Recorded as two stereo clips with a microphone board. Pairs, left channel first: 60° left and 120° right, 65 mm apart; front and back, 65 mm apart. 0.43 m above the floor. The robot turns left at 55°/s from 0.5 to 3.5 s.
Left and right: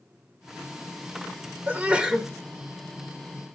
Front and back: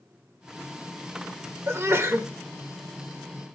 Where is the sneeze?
165° right, 1.2 m; by 2.3 s 160° left, 1.2 m.